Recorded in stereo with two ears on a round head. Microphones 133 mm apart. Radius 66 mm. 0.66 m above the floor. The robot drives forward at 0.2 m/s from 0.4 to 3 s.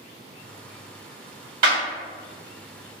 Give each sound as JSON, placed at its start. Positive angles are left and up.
{"t": 1.6, "sound": "a clap", "side_deg": -60, "distance_m": 1.5}